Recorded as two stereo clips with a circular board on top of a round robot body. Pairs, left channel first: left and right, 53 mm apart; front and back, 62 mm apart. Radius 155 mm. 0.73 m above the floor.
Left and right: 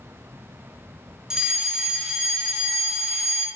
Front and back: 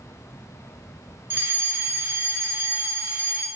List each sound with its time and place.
1.3 s a fire alarm: 165° right, 1.6 m